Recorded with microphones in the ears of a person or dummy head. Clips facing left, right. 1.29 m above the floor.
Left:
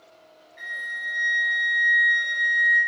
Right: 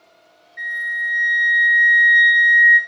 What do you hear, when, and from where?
0.6 s a flute: 15° right (ahead or behind), 1.2 m